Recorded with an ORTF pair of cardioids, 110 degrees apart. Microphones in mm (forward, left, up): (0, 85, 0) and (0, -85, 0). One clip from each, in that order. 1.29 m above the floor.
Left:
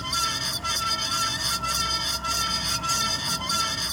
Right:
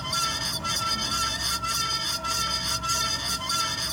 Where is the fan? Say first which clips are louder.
Left 1 dB; 10° left.